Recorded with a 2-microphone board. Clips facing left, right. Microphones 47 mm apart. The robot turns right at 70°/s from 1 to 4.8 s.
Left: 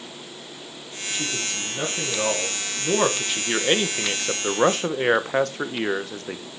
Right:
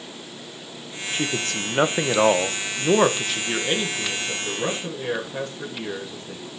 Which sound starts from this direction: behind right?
A man speaking, at 1.1 s.